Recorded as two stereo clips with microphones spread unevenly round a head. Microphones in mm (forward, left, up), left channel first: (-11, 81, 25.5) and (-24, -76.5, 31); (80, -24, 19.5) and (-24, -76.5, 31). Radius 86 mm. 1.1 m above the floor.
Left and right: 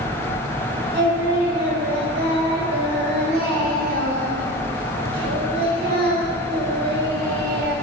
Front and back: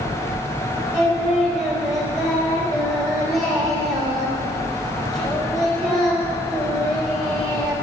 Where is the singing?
65° right, 4 m.